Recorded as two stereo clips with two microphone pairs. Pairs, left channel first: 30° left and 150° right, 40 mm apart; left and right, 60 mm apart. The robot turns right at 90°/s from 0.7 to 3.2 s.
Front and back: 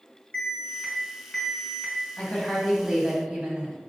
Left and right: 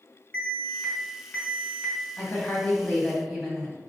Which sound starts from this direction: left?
A woman speaking, at 2.2 s.